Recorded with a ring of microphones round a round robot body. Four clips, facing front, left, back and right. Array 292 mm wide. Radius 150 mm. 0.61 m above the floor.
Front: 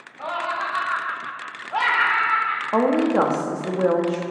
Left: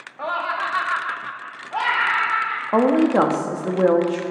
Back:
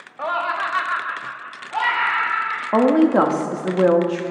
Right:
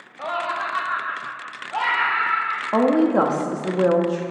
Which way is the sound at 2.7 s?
160° left.